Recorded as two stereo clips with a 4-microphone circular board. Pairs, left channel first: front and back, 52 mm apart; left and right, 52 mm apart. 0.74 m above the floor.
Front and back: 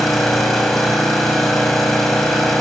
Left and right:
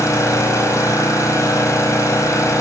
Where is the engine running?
85° left, 4.5 m.